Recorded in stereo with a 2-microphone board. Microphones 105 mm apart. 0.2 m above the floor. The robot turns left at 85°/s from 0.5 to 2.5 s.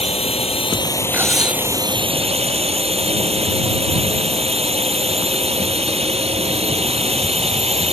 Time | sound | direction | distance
0.0 | a drone | 70° left | ?
1.1 | cutlery clinking | 20° right | ?